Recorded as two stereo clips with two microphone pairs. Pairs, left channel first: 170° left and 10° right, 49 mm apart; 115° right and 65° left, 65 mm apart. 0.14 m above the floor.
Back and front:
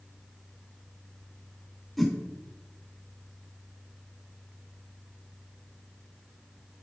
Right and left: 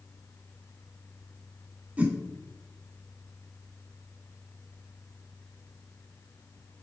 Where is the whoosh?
75° left, 0.8 m.